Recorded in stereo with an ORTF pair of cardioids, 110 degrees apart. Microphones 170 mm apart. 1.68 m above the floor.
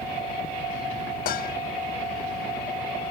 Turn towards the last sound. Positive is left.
turn(degrees=60)